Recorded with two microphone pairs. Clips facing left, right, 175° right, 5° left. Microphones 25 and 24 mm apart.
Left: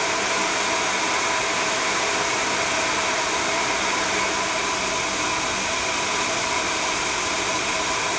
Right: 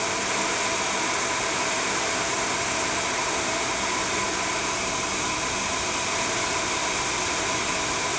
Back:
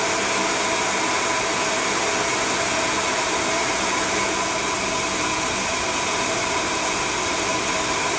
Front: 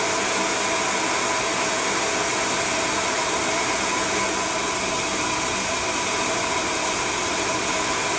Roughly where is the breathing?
No breathing in this recording.